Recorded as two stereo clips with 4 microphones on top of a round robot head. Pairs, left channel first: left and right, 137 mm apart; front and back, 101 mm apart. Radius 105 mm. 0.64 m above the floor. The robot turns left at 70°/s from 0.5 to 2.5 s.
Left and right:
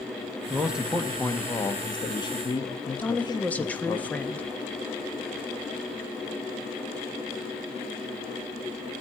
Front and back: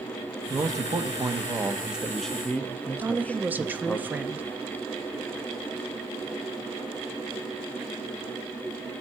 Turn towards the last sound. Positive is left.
turn(degrees=150)